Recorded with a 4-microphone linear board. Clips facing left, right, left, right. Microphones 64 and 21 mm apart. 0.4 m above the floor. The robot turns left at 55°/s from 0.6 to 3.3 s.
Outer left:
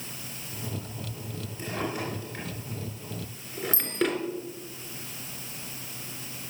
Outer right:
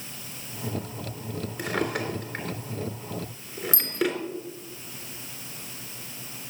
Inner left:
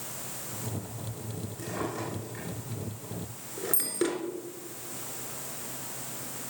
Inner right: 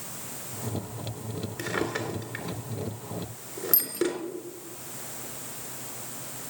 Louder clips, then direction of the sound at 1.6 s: Outer right 4 dB, inner right 4 dB; 80° right.